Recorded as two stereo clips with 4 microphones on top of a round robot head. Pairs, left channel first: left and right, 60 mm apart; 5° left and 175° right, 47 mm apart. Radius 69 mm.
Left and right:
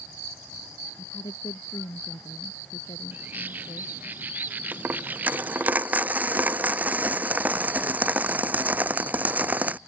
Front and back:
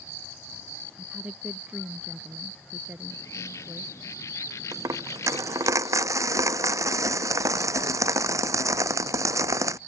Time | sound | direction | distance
1.0 | a woman speaking | 120° left | ?
3.1 | a bird | 30° right | ?
4.7 | a dropped coin | 160° right | ?